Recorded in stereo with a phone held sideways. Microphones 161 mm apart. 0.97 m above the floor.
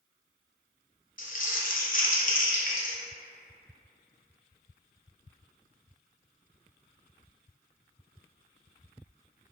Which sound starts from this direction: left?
Crumpling, at 1.2 s.